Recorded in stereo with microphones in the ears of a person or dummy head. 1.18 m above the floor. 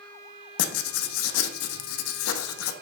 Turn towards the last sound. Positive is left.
turn(degrees=85)